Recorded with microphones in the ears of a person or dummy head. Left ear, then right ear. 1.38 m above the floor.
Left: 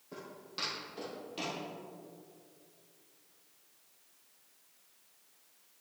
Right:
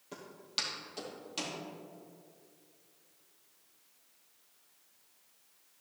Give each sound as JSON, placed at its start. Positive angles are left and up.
{"t": 0.1, "sound": "footsteps", "side_deg": -50, "distance_m": 2.0}